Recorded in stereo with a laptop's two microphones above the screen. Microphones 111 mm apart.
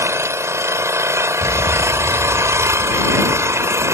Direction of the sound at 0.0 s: 25° right (ahead or behind).